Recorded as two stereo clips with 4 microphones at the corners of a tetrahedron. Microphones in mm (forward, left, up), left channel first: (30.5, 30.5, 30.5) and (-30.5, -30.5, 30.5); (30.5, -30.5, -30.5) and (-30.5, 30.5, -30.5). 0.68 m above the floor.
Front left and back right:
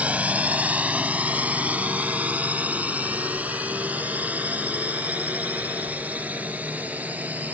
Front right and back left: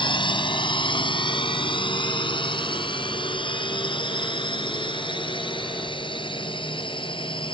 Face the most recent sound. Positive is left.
turn(degrees=-60)